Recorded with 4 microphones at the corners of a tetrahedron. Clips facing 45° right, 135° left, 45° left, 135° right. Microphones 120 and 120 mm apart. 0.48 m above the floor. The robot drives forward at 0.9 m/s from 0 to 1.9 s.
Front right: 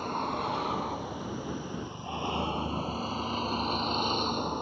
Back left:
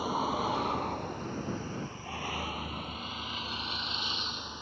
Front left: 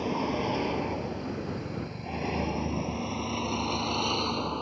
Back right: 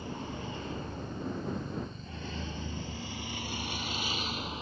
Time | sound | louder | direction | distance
0.0 | a vehicle | back left 1 dB, front left 11 dB | 50° left | ?